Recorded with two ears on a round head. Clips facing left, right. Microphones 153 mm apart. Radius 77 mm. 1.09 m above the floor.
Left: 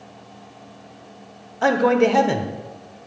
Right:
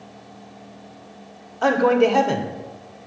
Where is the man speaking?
5° left (ahead or behind), 0.7 m.